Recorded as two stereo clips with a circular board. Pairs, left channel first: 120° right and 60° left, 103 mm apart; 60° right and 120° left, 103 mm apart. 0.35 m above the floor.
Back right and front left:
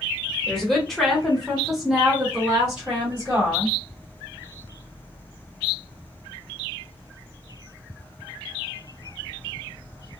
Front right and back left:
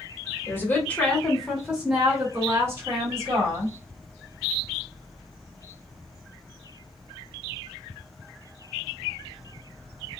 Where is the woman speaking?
40° right, 1.3 m; by 3.7 s 135° left, 1.7 m.